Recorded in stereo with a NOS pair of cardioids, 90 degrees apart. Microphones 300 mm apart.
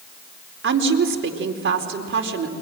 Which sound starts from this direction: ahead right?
A woman speaking, at 0.6 s.